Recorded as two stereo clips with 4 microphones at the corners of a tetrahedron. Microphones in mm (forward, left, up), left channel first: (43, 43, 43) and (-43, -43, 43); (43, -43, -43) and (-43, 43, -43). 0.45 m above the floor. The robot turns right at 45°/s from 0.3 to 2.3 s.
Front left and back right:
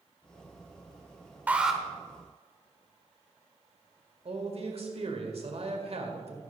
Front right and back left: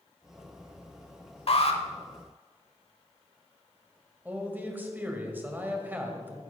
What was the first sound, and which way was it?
An alarm, 60° right.